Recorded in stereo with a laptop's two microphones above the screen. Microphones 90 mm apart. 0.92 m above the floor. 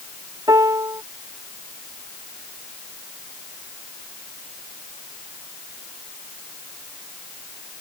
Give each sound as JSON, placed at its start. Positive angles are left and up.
{"t": 0.5, "sound": "a piano", "side_deg": -45}